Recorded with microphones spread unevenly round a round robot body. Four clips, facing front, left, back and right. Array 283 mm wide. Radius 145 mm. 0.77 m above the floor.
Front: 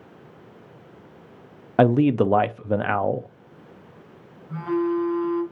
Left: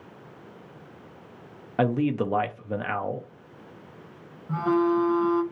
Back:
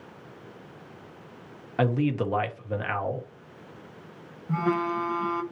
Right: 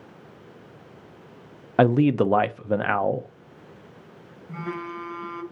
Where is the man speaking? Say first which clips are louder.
Right 6 dB, front 8 dB; 35° right, 0.6 m.